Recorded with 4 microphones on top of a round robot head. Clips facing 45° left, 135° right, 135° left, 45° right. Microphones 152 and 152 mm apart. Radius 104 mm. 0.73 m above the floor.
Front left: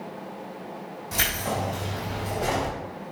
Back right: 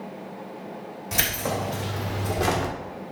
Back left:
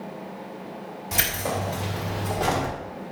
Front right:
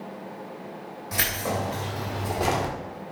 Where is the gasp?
No gasp in this recording.